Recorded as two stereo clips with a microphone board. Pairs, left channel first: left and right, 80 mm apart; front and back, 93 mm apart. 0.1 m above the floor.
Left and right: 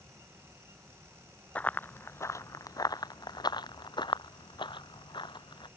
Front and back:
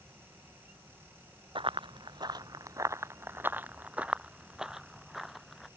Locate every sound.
1.6 s running footsteps: 160° left; by 5.7 s 90° left